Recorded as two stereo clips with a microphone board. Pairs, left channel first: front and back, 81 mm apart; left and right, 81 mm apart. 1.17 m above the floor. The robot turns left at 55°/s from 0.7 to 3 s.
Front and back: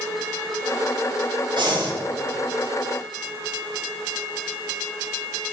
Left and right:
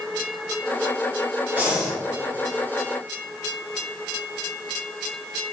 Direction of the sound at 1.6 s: 160° right.